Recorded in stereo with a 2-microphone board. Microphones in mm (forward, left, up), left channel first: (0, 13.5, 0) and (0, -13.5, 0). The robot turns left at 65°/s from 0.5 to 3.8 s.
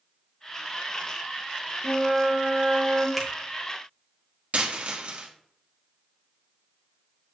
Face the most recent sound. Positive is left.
turn(degrees=-55)  # may be behind; listen again after turning